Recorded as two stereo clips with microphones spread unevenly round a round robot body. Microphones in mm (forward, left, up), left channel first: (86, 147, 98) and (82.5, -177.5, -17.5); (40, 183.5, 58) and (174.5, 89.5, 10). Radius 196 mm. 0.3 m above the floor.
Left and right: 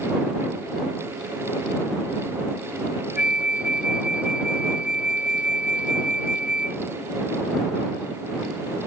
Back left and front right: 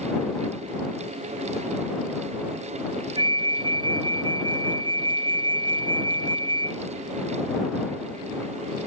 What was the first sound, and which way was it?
A flute, 10° left.